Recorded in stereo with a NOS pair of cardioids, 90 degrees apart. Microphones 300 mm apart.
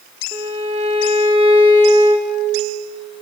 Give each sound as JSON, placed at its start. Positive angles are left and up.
{"t": 0.3, "sound": "a violin", "azimuth_deg": -15, "distance_m": 3.0}